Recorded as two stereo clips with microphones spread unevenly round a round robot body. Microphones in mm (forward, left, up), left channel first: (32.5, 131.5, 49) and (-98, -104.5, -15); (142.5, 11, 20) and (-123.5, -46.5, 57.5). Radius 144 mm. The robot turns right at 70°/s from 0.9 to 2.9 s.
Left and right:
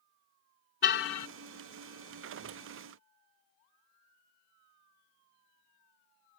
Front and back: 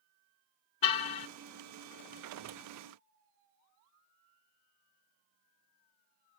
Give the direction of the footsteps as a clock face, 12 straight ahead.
I don't hear footsteps.